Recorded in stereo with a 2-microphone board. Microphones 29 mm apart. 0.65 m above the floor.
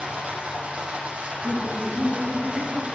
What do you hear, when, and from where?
0.0 s running water: 50° right (ahead or behind), 7.5 m
1.3 s laughter: 75° right (ahead or behind), 6 m